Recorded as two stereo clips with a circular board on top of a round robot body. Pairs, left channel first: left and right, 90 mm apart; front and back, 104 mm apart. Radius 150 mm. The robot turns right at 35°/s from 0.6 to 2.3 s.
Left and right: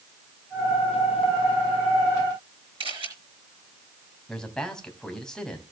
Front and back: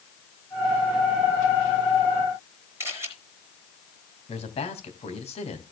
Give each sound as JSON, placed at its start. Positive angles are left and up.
{"t": 2.8, "sound": "a camera shutter", "azimuth_deg": -115, "distance_m": 4.5}
{"t": 4.3, "sound": "a man speaking", "azimuth_deg": 10, "distance_m": 3.0}